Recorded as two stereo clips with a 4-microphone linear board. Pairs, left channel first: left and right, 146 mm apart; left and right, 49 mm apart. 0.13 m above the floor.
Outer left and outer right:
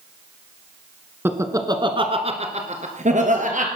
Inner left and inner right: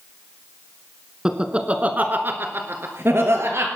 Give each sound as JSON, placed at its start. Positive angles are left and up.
{"t": 1.2, "sound": "laughter", "side_deg": -15, "distance_m": 1.5}